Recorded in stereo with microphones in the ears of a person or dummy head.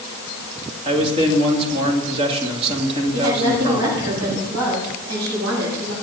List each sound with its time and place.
0.8 s a man speaking: 30° right (ahead or behind), 2.5 m
3.1 s a woman speaking: 90° right, 7 m